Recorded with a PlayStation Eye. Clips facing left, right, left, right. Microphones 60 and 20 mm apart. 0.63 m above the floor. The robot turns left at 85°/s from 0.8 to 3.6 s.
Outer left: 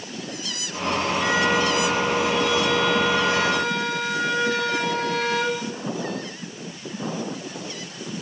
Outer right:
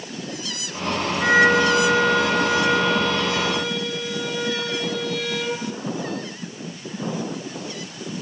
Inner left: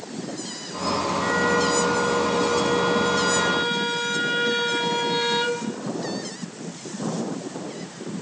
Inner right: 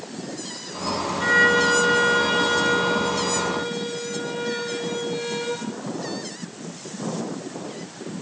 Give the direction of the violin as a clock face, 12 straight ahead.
1 o'clock.